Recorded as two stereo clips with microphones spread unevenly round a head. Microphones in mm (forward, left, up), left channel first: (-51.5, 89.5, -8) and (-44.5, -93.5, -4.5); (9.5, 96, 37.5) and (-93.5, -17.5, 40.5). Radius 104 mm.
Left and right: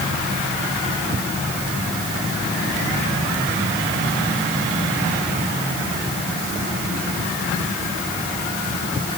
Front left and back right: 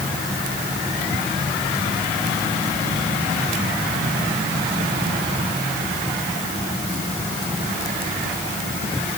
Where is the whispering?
I don't hear whispering.